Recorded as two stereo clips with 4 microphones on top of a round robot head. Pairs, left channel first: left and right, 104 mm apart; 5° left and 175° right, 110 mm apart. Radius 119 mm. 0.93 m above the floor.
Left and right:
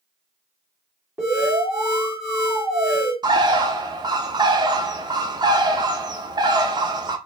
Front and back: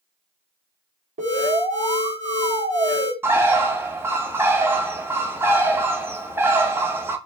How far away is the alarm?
About 1.8 m.